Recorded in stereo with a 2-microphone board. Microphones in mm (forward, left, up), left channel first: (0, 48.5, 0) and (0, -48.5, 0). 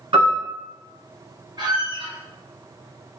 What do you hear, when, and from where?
0.1 s a piano: 60° right (ahead or behind), 1.5 m
1.6 s a squeak: 45° right (ahead or behind), 1.3 m